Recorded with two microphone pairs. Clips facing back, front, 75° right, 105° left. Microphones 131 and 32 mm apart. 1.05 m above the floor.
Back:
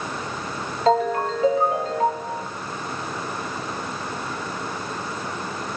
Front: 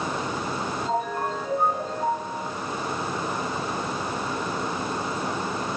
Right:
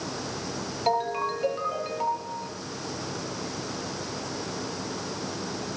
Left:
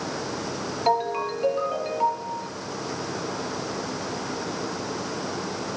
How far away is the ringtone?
About 7.5 m.